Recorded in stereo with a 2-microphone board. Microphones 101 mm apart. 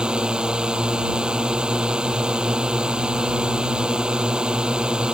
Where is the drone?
10° right (ahead or behind).